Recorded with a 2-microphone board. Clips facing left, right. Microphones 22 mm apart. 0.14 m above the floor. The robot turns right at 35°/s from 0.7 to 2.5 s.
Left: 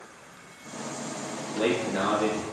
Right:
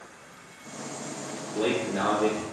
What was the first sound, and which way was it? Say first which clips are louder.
A man speaking: left 1 dB; 55° left.